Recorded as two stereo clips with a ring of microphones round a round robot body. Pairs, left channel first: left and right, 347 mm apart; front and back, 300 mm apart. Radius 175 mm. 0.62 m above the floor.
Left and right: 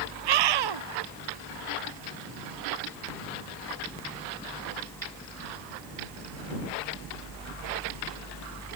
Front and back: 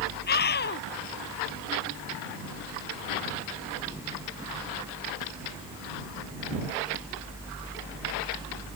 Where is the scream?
65° right.